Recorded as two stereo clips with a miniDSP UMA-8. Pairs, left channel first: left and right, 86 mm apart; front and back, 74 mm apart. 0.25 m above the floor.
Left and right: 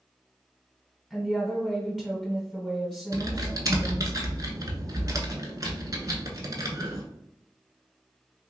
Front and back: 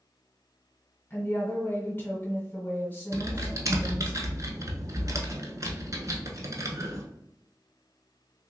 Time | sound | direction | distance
1.1 | a woman speaking | 5° left | 1.7 m
3.1 | typing on a keyboard | 135° right | 0.8 m